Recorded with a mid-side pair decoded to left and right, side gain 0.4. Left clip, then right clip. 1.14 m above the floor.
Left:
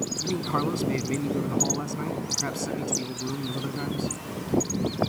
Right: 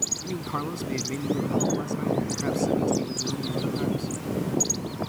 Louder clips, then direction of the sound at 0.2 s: Left 4 dB; 20° left.